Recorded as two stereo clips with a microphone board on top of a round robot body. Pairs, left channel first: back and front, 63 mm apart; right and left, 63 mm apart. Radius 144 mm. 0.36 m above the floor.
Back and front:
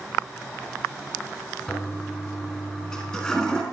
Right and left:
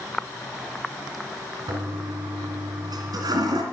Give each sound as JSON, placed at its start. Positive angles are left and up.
{"t": 1.7, "sound": "a toilet flushing", "azimuth_deg": 105, "distance_m": 2.5}